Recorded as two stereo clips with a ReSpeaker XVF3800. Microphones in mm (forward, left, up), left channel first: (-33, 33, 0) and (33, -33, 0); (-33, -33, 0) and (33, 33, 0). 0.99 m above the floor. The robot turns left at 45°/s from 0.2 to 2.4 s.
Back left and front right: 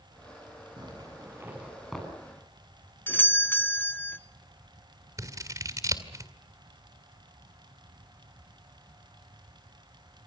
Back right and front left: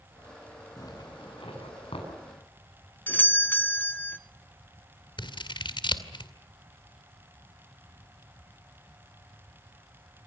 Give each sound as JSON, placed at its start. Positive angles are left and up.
{"t": 0.8, "sound": "a zipper", "azimuth_deg": -80, "distance_m": 8.5}
{"t": 3.1, "sound": "a doorbell", "azimuth_deg": 180, "distance_m": 0.9}
{"t": 5.2, "sound": "scissors", "azimuth_deg": -100, "distance_m": 2.0}